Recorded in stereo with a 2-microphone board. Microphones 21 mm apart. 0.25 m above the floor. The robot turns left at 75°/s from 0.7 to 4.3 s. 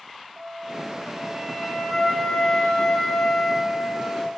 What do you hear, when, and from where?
0.4 s a flute: 140° right, 2 m; by 4.3 s 50° right, 2 m